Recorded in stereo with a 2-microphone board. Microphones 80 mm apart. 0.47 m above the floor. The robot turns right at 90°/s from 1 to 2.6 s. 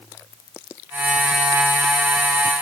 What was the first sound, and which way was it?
Only background noise.